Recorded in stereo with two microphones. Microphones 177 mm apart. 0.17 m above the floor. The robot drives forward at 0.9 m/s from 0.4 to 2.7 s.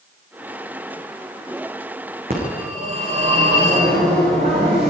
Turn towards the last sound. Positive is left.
turn(degrees=-55)  # may be behind; listen again after turning